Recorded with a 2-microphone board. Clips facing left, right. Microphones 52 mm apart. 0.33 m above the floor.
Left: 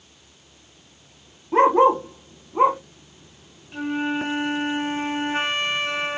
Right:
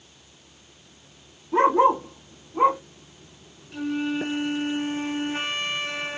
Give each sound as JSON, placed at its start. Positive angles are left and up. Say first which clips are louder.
{"t": 1.5, "sound": "a dog barking", "louder": "left 3 dB", "side_deg": 45, "distance_m": 2.5}
{"t": 3.7, "sound": "a flute", "louder": "left 2 dB", "side_deg": 25, "distance_m": 0.6}